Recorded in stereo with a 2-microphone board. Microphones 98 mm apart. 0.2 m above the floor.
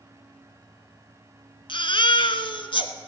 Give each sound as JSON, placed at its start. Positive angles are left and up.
{"t": 1.7, "sound": "a baby crying", "side_deg": 60, "distance_m": 0.9}